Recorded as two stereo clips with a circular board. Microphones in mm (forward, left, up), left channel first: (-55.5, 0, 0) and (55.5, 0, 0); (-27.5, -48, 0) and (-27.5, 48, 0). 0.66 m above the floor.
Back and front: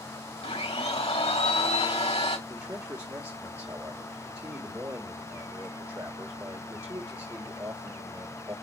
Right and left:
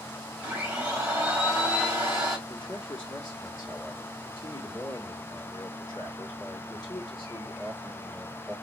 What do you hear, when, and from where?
0.4 s a blender: 165° left, 3 m
2.5 s a man speaking: 50° right, 1.7 m